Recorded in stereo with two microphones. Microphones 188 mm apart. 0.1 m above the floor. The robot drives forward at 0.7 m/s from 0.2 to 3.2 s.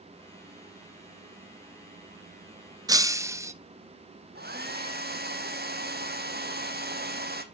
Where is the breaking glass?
20° right (ahead or behind), 0.5 m; by 3.5 s 15° right (ahead or behind), 0.7 m.